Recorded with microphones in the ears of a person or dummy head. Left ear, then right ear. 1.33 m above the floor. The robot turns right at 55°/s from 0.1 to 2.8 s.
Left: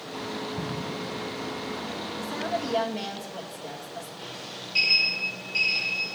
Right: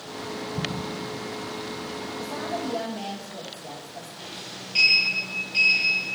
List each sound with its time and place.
0.6 s an explosion: 30° right (ahead or behind), 0.9 m; by 1.0 s 50° right (ahead or behind), 0.9 m
2.2 s a woman speaking: 20° left, 1.5 m; by 4.1 s 55° left, 1.5 m
4.2 s a sliding door: 10° right (ahead or behind), 5 m